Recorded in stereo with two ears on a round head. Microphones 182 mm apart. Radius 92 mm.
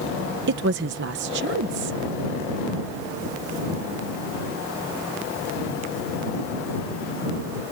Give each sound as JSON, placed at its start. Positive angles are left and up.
{"t": 0.5, "sound": "a woman speaking", "side_deg": -60}